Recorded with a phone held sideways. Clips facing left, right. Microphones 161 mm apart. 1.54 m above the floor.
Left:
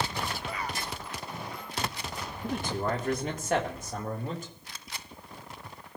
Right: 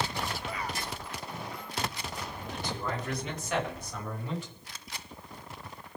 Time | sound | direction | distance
2.4 | a man speaking | 50° left (ahead or behind) | 2.5 m